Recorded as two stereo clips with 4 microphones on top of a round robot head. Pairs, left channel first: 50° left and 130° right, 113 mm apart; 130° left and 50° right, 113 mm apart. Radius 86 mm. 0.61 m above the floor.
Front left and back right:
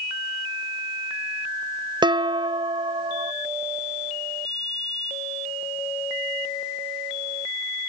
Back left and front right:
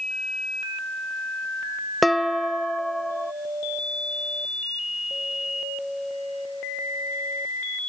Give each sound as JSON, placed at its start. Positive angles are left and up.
{"t": 2.0, "sound": "dishes clattering", "azimuth_deg": -140, "distance_m": 0.6}